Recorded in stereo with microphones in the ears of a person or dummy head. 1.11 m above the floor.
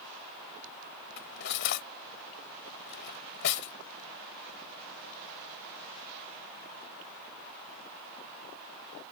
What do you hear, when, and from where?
1.2 s cutlery clinking: 65° left (ahead or behind)